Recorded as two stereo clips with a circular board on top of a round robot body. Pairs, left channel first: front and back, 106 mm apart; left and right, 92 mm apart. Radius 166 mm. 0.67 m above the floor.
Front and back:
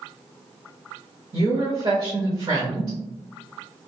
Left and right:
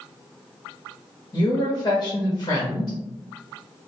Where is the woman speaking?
140° left, 1.0 m.